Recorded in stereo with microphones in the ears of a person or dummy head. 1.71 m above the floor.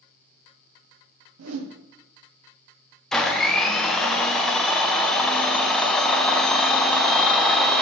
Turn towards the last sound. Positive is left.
turn(degrees=0)  # may be behind; listen again after turning